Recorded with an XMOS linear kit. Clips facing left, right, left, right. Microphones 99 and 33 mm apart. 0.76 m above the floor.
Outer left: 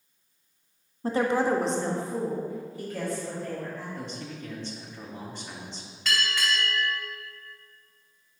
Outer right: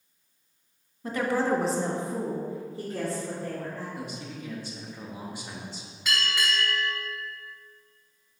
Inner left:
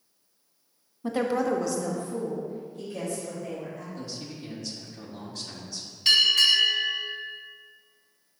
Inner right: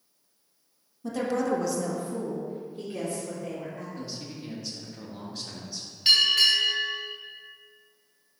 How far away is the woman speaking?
About 0.9 m.